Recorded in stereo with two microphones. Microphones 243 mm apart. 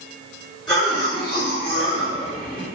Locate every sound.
0.7 s a cough: 15° left (ahead or behind), 1.8 m